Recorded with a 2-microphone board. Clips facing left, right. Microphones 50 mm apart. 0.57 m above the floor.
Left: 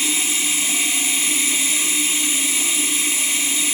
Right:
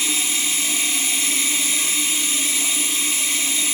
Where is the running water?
20° left (ahead or behind), 3.5 m.